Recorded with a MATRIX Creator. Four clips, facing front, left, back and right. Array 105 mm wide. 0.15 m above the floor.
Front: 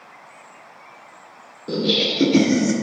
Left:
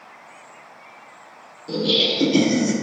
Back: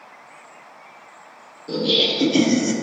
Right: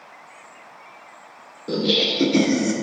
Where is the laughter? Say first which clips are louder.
Even, even; 55° right, 2.0 m; by 2.7 s straight ahead, 1.5 m.